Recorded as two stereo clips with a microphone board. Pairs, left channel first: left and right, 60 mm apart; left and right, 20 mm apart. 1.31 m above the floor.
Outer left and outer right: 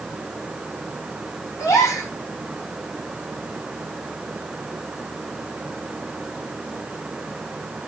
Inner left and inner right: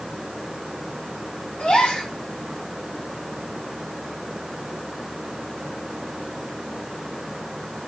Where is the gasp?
70° left (ahead or behind), 5 m.